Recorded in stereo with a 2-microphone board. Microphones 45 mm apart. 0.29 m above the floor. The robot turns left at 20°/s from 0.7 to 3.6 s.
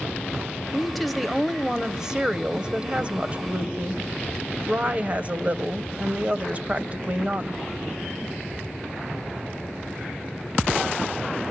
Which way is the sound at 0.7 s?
5° left.